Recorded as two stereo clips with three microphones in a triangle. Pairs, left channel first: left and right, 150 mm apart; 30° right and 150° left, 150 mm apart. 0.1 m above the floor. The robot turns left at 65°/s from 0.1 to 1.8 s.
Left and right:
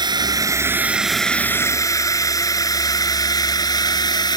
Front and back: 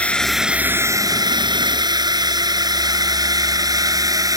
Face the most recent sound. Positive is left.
turn(degrees=115)